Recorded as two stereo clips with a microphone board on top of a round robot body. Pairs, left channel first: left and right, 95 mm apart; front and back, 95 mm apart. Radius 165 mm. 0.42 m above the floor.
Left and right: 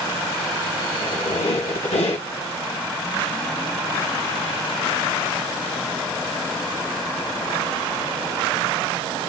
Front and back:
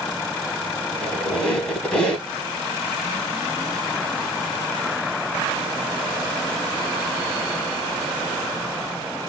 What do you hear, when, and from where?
0.9 s a squeak: 80° left, 0.8 m